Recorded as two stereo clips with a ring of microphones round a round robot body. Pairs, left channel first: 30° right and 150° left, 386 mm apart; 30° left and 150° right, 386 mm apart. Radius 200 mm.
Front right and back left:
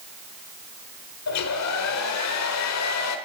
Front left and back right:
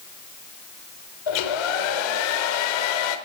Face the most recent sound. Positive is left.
turn(degrees=20)